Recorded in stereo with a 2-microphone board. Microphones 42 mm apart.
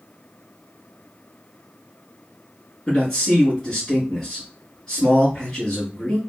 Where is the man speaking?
10° left (ahead or behind), 2.0 m.